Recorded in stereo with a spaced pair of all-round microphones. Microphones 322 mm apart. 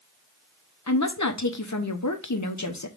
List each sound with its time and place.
0.9 s a woman speaking: 60° left (ahead or behind), 0.8 m